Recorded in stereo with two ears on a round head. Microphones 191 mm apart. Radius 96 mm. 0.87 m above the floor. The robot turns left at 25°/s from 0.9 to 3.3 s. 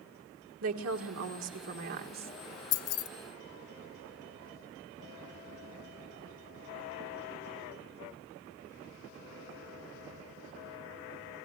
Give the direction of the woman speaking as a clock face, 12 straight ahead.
3 o'clock.